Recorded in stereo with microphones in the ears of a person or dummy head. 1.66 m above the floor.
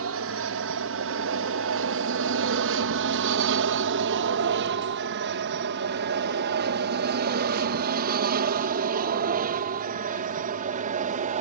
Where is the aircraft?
65° right (ahead or behind); by 11.4 s 40° right (ahead or behind).